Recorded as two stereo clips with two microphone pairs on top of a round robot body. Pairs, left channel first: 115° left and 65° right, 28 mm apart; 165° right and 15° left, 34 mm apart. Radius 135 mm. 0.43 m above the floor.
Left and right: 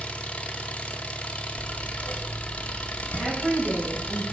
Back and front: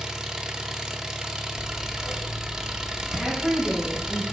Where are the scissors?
95° left, 1.0 m.